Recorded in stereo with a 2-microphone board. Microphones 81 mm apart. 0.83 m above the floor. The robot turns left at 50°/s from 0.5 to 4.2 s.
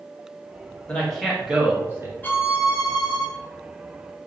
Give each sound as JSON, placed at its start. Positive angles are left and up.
{"t": 0.9, "sound": "a man speaking", "side_deg": 15, "distance_m": 1.5}
{"t": 2.2, "sound": "a violin", "azimuth_deg": 155, "distance_m": 0.6}